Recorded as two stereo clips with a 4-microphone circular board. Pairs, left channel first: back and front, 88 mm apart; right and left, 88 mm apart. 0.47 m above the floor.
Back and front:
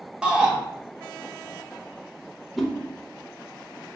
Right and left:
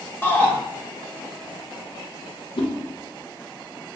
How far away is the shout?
About 0.8 m.